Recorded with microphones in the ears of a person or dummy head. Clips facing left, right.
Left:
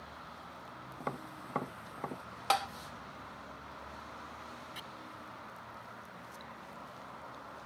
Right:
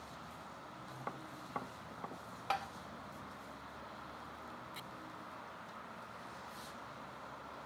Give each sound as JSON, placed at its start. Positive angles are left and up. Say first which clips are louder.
{"t": 1.0, "sound": "tapping", "louder": "left 7 dB", "side_deg": 60}
{"t": 2.5, "sound": "tapping", "louder": "left 7 dB", "side_deg": 70}
{"t": 4.8, "sound": "chopping", "louder": "left 2 dB", "side_deg": 10}